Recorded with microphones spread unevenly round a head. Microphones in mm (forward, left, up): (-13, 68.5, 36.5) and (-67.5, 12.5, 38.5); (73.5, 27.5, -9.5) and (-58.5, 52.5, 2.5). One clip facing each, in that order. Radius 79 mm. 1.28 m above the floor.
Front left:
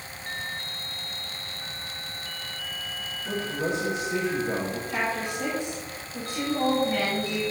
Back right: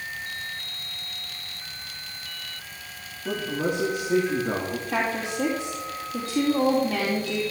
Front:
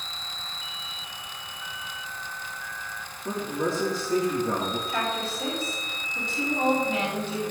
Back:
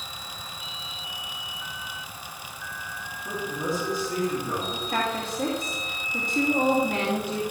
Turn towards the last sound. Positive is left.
turn(degrees=-135)